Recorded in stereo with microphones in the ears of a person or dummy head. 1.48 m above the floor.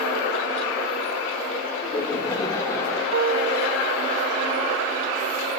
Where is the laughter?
25° left (ahead or behind), 5.5 m; by 3.0 s 15° left (ahead or behind), 5 m.